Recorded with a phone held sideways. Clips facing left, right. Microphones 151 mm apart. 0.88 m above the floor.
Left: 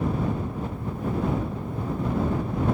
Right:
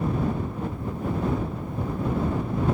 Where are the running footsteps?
No running footsteps in this recording.